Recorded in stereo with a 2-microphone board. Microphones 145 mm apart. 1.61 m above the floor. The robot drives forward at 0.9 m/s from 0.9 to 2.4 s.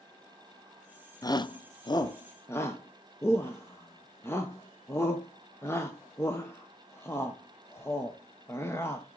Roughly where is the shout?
Left.